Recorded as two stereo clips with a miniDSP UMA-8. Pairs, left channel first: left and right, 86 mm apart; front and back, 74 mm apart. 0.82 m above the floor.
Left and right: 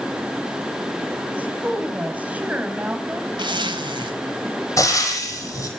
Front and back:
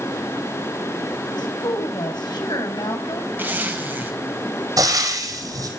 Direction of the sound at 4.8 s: 145° left.